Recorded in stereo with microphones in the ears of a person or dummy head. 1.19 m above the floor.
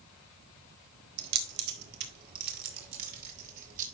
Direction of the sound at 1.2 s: 65° right (ahead or behind).